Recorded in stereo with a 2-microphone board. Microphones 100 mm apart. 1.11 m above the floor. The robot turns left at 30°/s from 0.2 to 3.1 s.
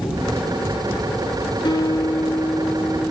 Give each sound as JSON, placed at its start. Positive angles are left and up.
{"t": 1.6, "sound": "a guitar", "azimuth_deg": 45, "distance_m": 1.5}